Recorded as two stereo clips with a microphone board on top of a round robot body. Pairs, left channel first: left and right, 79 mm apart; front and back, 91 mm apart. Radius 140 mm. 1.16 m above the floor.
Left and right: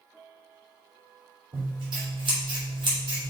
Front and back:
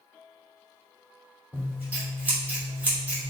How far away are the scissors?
About 3 m.